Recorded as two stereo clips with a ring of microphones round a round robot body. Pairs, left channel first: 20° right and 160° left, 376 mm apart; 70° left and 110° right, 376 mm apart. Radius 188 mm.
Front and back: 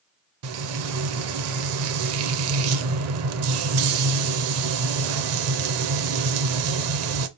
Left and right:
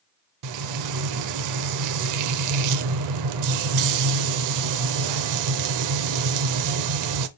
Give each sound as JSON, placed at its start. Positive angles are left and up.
{"t": 0.4, "sound": "frying", "azimuth_deg": -150, "distance_m": 0.5}